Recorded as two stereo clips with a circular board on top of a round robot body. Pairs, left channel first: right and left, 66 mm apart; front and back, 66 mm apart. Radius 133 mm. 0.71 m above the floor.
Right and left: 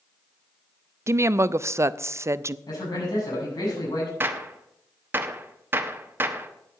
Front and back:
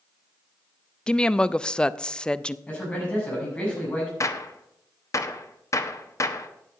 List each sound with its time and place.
1.1 s a woman speaking: 70° left, 0.6 m
2.7 s a man speaking: 70° right, 7.5 m
4.2 s a gunshot: 35° left, 1.1 m